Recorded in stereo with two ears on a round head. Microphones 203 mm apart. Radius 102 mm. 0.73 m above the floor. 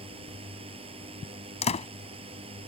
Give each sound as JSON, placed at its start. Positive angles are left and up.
{"t": 0.0, "sound": "a drone", "side_deg": -25}
{"t": 1.6, "sound": "a door slam", "side_deg": 30}